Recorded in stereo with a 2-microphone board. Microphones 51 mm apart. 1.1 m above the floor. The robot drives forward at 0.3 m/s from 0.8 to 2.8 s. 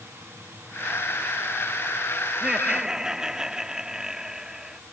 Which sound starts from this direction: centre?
Laughter, at 2.3 s.